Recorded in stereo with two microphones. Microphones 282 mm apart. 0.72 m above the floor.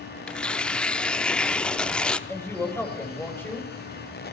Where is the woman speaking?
10° left (ahead or behind), 3.5 m.